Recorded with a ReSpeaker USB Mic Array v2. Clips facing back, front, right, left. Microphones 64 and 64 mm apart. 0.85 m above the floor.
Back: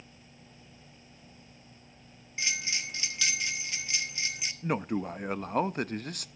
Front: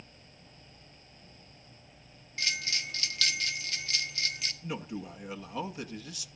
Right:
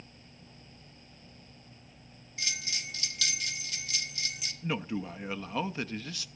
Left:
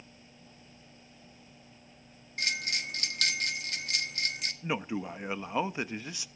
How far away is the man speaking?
About 0.5 m.